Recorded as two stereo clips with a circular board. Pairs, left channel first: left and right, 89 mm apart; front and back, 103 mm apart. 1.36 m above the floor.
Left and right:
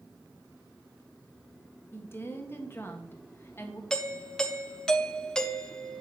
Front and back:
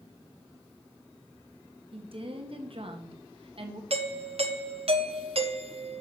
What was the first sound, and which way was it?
A woman speaking, 155° left.